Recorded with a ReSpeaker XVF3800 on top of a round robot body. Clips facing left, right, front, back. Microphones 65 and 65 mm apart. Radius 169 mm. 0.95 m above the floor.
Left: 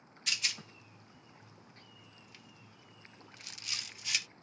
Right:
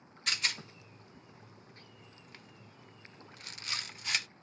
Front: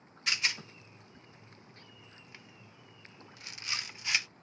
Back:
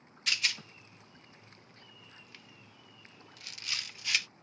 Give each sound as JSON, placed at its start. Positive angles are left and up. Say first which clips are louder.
{"t": 0.3, "sound": "a rattle", "louder": "right 3 dB, front 1 dB", "azimuth_deg": -60, "distance_m": 0.7}